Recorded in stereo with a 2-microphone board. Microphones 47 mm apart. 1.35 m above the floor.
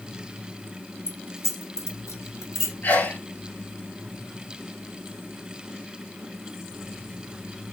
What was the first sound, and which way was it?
Keys jangling, 85° left.